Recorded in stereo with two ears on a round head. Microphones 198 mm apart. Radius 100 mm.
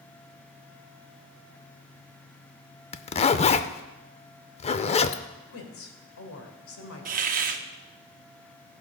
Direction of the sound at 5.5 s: 70° left (ahead or behind).